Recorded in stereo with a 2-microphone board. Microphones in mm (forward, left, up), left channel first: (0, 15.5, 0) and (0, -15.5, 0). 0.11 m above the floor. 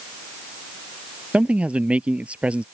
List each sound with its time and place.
1.3 s a man speaking: 45° right (ahead or behind)